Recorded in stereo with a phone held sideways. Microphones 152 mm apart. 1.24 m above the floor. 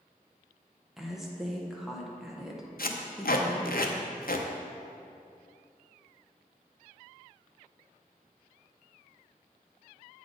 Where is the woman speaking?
Centre (ahead or behind), 0.8 m.